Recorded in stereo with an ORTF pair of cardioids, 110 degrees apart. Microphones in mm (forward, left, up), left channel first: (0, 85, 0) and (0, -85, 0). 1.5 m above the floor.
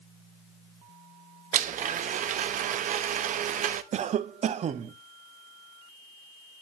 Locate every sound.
1.5 s a blender: 50° right, 0.7 m
3.9 s a cough: 45° right, 0.8 m